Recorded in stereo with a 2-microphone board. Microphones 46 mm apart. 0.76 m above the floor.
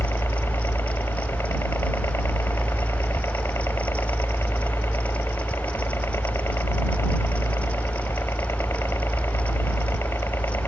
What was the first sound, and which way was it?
A helicopter, 65° left (ahead or behind).